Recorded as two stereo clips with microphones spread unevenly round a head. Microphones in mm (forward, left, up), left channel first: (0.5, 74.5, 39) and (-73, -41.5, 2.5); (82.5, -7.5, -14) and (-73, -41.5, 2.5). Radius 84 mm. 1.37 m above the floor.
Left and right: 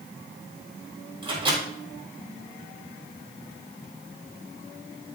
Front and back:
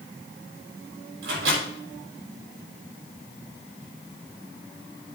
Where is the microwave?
Straight behind, 5.5 m.